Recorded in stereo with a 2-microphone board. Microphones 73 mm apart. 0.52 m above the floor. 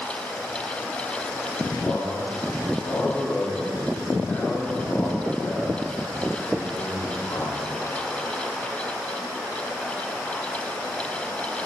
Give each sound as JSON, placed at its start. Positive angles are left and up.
{"t": 1.8, "sound": "a man speaking", "side_deg": 30, "distance_m": 2.5}